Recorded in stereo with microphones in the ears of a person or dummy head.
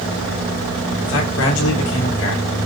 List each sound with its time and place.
1.0 s a man speaking: 80° left, 4 m; by 2.5 s 70° left (ahead or behind), 4 m